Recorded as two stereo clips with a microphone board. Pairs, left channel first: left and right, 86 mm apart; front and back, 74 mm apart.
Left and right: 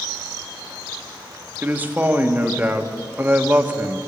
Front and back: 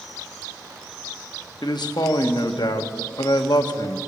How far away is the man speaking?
About 1.2 m.